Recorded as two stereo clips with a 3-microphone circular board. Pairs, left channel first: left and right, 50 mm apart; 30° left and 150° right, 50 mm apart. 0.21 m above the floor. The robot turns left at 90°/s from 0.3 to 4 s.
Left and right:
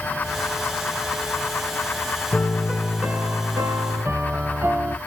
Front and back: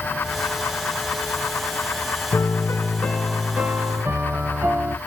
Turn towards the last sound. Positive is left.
turn(degrees=-120)